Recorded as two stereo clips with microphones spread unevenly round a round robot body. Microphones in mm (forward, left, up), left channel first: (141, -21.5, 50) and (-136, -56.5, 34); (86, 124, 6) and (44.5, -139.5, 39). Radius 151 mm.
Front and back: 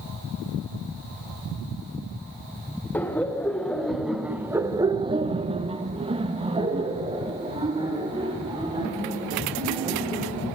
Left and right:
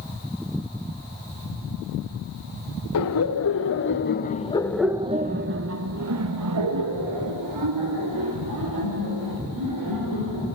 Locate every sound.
2.9 s laughter: 95° left, 1.8 m; by 10.5 s 100° right, 4.5 m